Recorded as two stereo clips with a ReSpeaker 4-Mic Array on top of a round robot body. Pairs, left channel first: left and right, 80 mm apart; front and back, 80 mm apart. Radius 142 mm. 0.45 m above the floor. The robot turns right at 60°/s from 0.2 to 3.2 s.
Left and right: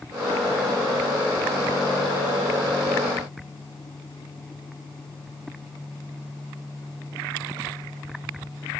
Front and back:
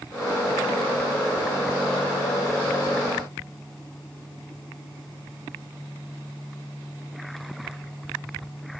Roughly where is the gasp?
I don't hear a gasp.